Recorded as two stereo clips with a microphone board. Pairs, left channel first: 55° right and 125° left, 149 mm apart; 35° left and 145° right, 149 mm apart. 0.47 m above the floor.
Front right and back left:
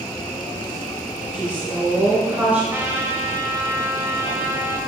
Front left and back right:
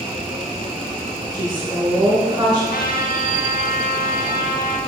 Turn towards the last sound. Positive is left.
turn(degrees=50)